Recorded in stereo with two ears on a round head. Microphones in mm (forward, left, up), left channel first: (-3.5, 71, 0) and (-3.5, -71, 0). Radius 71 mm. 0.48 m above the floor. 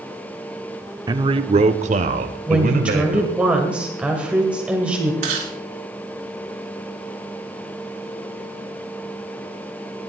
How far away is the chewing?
About 4.5 m.